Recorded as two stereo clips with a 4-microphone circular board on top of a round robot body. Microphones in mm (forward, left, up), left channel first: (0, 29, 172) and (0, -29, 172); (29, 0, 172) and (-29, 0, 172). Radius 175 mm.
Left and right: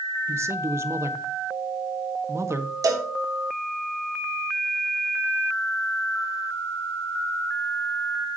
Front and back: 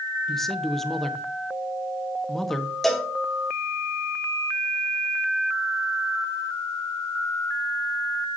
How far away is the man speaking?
About 1.3 m.